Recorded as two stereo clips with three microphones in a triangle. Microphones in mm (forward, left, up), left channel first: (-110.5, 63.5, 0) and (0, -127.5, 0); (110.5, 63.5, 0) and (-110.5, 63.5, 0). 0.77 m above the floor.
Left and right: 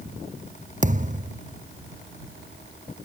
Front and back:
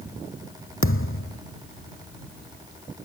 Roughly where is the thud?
Ahead.